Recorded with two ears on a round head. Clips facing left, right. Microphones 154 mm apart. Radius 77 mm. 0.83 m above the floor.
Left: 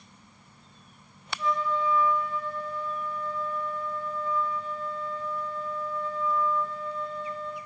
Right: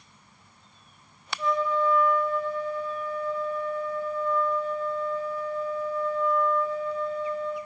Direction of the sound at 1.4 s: 75° right (ahead or behind).